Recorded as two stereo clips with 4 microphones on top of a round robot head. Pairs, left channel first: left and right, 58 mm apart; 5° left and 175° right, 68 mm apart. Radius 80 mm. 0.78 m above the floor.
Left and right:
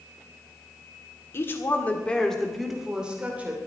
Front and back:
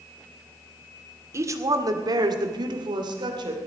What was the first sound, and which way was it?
A woman speaking, 140° left.